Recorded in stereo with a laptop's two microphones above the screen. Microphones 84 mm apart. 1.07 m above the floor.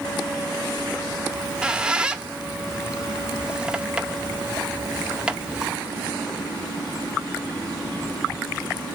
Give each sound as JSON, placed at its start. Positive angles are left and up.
{"t": 1.3, "sound": "a squeak", "side_deg": -10, "distance_m": 0.5}